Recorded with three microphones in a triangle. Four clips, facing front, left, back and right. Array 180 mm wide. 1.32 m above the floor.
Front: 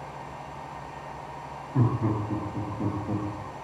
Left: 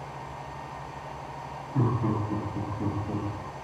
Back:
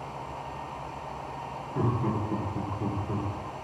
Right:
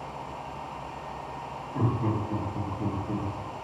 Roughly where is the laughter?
Ahead.